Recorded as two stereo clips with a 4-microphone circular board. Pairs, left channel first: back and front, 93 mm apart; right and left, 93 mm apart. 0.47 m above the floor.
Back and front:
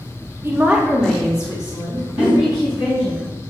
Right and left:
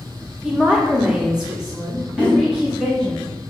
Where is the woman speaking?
25° left, 0.9 m; by 3.1 s 175° left, 2.5 m.